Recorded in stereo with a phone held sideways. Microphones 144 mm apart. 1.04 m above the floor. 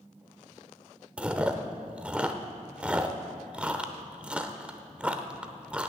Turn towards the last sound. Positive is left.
turn(degrees=-10)  # may be behind; listen again after turning